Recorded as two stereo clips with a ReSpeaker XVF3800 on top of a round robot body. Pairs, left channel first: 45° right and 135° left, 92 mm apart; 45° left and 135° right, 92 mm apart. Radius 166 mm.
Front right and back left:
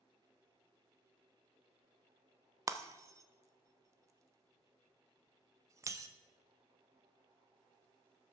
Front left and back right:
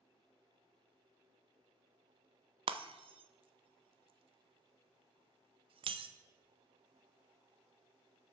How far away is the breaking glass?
About 0.6 m.